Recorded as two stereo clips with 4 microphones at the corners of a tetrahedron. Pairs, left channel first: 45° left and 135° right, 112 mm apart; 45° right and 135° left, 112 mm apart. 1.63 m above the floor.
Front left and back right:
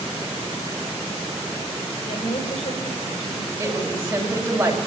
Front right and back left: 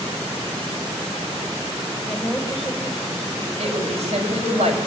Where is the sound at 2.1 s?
40° left, 5 m.